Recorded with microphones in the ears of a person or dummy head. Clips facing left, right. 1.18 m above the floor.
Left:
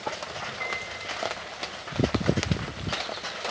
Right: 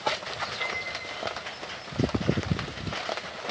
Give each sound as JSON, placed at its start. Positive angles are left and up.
{"t": 0.6, "sound": "a piano", "side_deg": -20, "distance_m": 4.5}